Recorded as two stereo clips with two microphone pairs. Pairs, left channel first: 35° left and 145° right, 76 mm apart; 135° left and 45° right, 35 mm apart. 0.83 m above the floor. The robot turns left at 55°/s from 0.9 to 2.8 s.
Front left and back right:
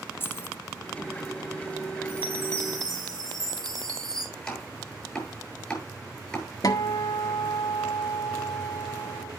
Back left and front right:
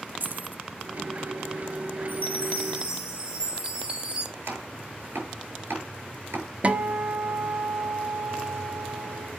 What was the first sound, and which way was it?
Keys jangling, 25° right.